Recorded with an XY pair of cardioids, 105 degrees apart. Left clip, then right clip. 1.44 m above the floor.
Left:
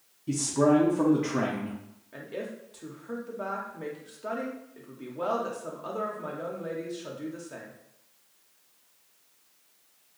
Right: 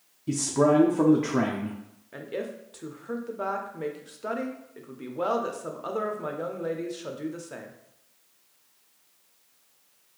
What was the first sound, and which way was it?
A man speaking, 25° right.